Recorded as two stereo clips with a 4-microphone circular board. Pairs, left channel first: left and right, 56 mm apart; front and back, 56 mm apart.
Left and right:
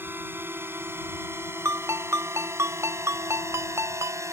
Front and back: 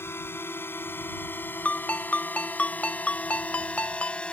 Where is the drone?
40° right; by 4.3 s 70° right.